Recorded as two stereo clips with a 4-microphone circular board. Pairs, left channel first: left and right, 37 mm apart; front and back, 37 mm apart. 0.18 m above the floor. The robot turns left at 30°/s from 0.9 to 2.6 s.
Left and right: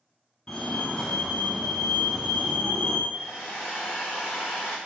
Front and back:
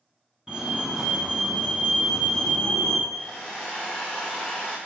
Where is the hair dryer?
75° left, 5 m.